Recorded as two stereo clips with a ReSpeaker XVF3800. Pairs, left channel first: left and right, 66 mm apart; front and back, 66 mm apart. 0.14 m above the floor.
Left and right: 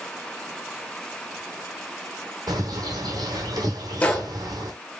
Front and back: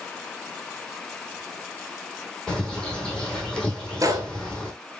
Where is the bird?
80° right, 1.7 m.